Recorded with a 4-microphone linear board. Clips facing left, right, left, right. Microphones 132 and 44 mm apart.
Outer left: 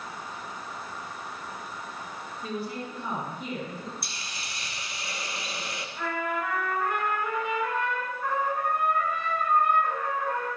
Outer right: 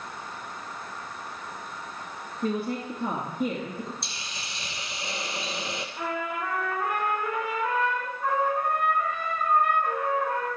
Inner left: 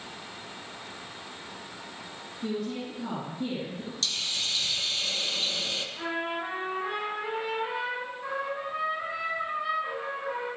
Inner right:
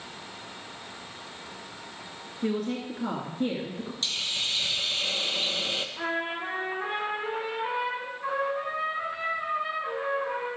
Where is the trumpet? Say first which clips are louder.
Outer left 2 dB, inner left 1 dB; 15° right (ahead or behind), 5.5 m.